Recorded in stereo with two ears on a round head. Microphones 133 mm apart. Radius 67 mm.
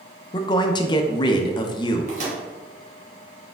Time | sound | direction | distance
0.3 | a man speaking | 30° left (ahead or behind) | 0.6 m
2.1 | a microwave | 50° right (ahead or behind) | 1.6 m